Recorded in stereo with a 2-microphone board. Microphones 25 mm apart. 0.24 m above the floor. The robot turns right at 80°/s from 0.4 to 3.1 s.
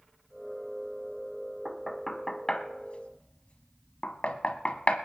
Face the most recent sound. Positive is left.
turn(degrees=50)  # may be behind; listen again after turning